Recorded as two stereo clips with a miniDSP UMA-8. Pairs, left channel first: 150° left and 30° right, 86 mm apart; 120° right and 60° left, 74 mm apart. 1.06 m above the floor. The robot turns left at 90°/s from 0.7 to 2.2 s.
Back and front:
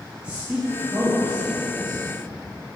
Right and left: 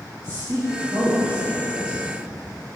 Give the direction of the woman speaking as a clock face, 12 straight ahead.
11 o'clock.